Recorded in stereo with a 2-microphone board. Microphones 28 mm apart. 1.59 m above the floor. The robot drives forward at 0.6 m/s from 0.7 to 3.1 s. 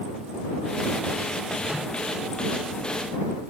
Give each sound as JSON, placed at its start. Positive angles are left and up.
{"t": 1.7, "sound": "a microwave", "side_deg": -15, "distance_m": 2.5}